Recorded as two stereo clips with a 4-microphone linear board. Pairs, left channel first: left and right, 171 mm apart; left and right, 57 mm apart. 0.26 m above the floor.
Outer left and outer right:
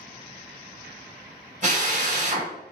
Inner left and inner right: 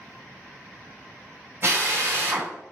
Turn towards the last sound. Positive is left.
turn(degrees=-45)  # may be behind; listen again after turning